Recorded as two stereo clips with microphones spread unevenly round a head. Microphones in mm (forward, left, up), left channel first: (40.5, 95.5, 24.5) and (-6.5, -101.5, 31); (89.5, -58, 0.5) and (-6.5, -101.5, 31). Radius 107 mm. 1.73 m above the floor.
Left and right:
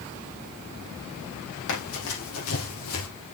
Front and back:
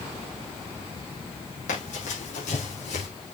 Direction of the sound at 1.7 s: 60° left.